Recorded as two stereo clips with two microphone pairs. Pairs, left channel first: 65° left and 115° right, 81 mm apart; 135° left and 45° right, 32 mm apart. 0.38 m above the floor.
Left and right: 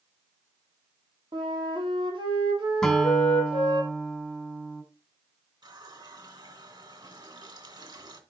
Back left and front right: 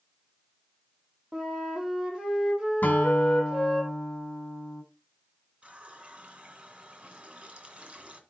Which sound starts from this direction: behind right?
A flute, at 1.3 s.